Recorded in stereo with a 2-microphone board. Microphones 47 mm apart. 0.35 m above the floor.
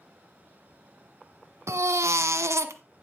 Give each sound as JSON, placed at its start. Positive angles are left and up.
{"t": 1.7, "sound": "a baby crying", "side_deg": -80, "distance_m": 0.8}